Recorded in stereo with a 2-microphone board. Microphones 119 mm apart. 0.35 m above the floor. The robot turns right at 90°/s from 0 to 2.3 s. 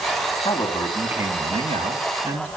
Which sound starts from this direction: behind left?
A man speaking, at 0.5 s.